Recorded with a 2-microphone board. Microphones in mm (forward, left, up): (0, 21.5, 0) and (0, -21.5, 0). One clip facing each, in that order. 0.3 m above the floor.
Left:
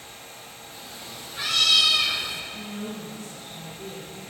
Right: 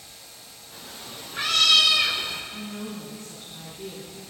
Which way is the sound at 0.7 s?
35° right (ahead or behind).